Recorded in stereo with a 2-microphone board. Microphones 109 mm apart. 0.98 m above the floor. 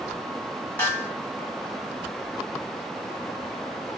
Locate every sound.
0.8 s a snare drum: 15° left (ahead or behind), 1.6 m